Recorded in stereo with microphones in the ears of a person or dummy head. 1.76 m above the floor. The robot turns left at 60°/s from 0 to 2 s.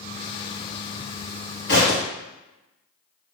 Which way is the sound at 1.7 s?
45° left (ahead or behind).